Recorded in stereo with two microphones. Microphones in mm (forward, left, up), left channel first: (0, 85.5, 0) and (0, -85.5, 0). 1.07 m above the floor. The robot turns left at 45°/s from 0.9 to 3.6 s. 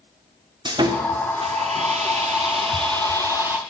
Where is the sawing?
40° right, 0.7 m; by 3.6 s 165° right, 0.7 m.